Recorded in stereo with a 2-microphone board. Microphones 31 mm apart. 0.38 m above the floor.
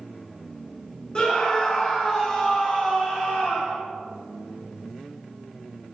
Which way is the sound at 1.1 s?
25° left (ahead or behind).